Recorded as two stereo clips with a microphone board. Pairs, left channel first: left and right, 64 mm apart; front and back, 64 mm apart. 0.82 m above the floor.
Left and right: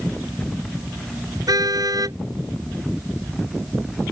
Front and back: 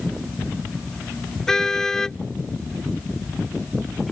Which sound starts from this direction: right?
A car horn, at 1.5 s.